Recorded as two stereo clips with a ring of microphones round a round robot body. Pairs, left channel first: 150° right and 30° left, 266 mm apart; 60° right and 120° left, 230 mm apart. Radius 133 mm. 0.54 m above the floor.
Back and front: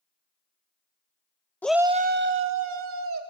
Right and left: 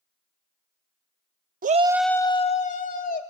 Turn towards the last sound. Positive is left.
turn(degrees=-10)